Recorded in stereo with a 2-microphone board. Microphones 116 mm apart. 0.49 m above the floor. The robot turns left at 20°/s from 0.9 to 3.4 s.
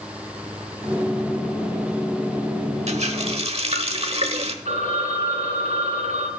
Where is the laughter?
No laughter in this recording.